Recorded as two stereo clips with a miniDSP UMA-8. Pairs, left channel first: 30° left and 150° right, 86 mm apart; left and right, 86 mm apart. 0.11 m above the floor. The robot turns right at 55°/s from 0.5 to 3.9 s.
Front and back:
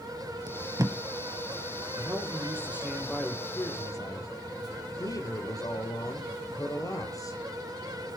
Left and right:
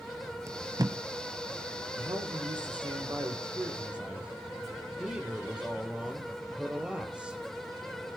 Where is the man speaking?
120° right, 4 m; by 7.4 s 15° right, 4 m.